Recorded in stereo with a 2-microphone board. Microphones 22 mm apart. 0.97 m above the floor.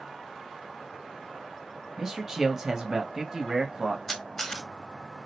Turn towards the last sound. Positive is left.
turn(degrees=20)  # may be behind; listen again after turning